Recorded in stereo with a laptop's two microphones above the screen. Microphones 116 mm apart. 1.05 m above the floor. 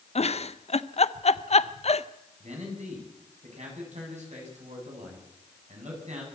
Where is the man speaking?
90° right, 7 m.